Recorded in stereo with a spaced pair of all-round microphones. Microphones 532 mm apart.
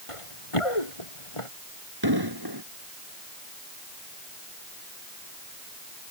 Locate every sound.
0.1 s running footsteps: 75° left (ahead or behind); by 1.5 s 70° left (ahead or behind)
2.0 s an explosion: 45° right (ahead or behind)